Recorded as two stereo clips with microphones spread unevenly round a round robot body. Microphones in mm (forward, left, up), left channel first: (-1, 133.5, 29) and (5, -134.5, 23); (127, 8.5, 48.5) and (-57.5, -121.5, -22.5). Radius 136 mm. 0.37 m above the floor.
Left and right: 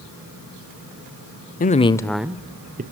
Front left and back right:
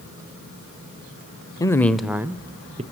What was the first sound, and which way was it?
A man speaking, 125° left.